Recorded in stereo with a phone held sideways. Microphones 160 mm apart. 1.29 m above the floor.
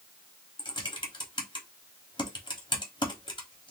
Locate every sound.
0.6 s typing on a keyboard: 30° left (ahead or behind), 0.9 m